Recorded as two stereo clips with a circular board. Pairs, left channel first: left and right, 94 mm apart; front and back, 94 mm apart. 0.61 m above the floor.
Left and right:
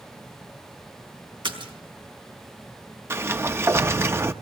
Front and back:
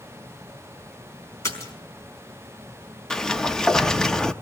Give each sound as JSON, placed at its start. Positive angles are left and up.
{"t": 1.4, "sound": "a splash", "azimuth_deg": -60, "distance_m": 4.5}
{"t": 3.1, "sound": "a sliding door", "azimuth_deg": -80, "distance_m": 0.6}